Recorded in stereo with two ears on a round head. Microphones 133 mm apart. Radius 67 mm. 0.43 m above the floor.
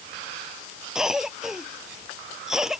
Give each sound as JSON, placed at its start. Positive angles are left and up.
{"t": 0.9, "sound": "a cough", "side_deg": -5}